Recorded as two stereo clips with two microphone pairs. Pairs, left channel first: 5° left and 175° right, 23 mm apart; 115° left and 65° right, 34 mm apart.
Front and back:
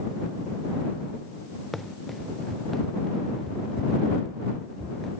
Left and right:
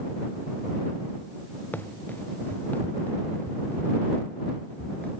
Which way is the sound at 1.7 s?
90° left.